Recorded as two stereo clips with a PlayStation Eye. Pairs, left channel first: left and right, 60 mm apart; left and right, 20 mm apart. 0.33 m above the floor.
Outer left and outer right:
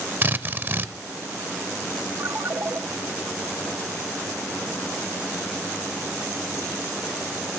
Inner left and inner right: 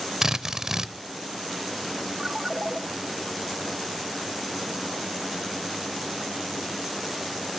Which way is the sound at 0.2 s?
35° right (ahead or behind).